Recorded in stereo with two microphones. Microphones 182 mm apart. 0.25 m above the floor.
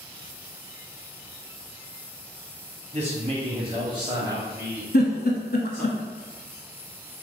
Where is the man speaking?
40° right (ahead or behind), 1.4 m; by 5.9 s 5° left (ahead or behind), 1.7 m.